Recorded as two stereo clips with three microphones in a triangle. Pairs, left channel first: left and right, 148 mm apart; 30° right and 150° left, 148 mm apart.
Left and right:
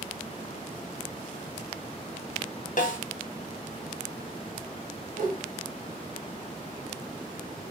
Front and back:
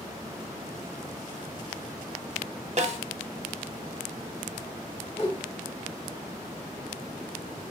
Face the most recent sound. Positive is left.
turn(degrees=-85)